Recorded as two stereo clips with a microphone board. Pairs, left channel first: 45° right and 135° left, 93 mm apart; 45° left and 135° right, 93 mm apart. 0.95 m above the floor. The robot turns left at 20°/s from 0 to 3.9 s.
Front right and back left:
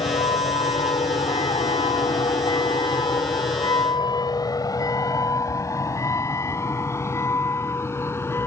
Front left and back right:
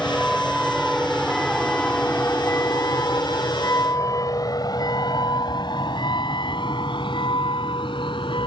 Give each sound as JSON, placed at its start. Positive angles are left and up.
{"t": 0.0, "sound": "a vehicle", "azimuth_deg": -40}